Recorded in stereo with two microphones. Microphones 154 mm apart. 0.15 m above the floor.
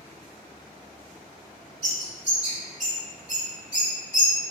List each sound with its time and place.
1.8 s a bird: 45° right (ahead or behind), 1.5 m